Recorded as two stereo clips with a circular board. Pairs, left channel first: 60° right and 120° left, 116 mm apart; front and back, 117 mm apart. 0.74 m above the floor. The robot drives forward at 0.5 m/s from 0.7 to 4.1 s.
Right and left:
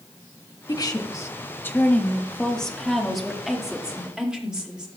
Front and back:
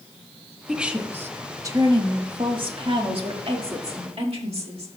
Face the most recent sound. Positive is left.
turn(degrees=-155)